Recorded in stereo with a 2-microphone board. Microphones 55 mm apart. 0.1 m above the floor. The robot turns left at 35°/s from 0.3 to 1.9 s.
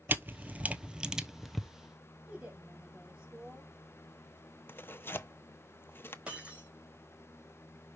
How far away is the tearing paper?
About 0.6 m.